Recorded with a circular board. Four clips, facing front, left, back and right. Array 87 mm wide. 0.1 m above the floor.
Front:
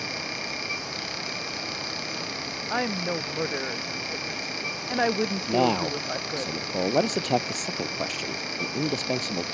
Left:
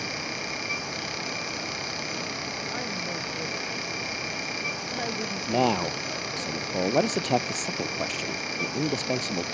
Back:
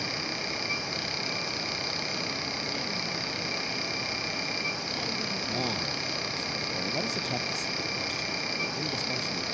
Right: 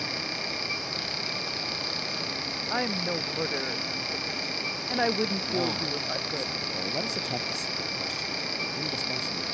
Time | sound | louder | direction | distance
2.7 | a woman speaking | right 8 dB, front 7 dB | 25° right | ?
5.5 | a man speaking | left 5 dB, front 12 dB | 40° left | ?